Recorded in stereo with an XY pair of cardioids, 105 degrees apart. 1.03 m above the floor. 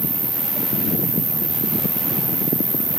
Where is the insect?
35° right, 2.5 m.